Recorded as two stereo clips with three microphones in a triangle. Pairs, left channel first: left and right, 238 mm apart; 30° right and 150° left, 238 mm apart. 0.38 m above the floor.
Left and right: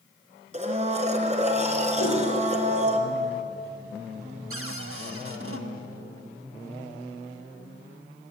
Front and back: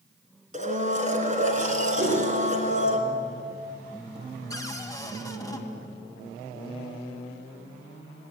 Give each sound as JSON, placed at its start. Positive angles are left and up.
{"t": 0.5, "sound": "a blender", "azimuth_deg": -150, "distance_m": 2.0}
{"t": 2.0, "sound": "a whoosh", "azimuth_deg": 105, "distance_m": 7.0}
{"t": 4.5, "sound": "a cupboard door", "azimuth_deg": -105, "distance_m": 1.9}